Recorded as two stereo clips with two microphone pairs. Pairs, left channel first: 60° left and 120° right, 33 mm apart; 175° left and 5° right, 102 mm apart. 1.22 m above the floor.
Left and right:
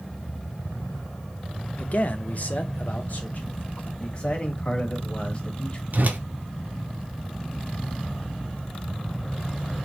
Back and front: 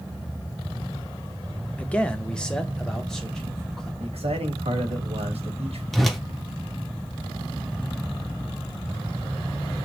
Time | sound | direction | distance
1.8 | a man speaking | 100° left | 0.5 m
4.0 | a man speaking | 5° left | 1.3 m
5.9 | a whoosh | 95° right | 0.6 m